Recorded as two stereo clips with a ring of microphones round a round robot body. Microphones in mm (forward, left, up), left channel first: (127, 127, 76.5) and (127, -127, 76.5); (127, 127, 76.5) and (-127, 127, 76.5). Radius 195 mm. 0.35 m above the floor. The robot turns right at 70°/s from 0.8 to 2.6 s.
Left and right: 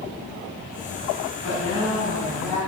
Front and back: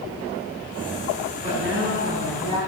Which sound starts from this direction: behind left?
A woman speaking, at 1.4 s.